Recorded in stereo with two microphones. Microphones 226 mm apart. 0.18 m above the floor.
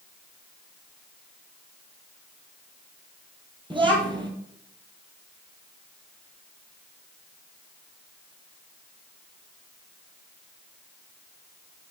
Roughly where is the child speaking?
Right.